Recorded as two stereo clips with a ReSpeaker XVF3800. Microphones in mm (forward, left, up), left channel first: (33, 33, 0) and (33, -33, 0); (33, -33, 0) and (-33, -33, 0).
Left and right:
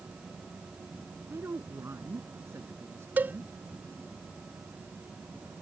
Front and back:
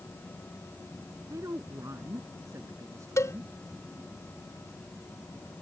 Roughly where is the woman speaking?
Behind right.